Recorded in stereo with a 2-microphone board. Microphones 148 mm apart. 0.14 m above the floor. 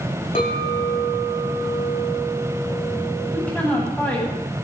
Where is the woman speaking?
10° left (ahead or behind), 8 m.